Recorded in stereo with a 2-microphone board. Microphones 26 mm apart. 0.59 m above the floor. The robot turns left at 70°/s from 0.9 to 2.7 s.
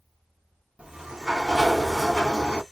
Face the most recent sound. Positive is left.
turn(degrees=120)